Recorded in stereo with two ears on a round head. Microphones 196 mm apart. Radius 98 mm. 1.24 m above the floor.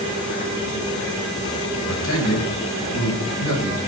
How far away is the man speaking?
About 6 m.